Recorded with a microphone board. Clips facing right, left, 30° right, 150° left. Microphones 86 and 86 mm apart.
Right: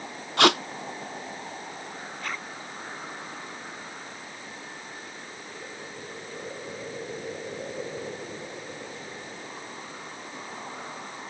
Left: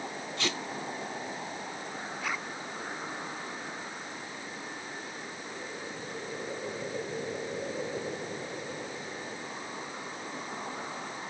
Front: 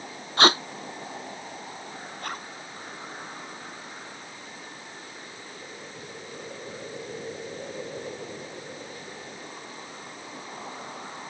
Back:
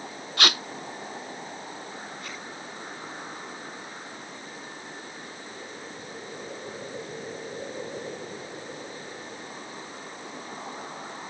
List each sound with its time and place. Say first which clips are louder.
0.4 s tape being pulled: right 15 dB, front 7 dB; 85° right
2.2 s a zipper: even, front 3 dB; 5° left